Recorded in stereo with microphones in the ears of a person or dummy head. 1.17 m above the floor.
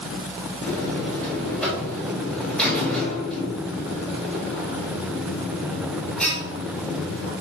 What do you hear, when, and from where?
0.6 s a buzzer: 10° left (ahead or behind), 4 m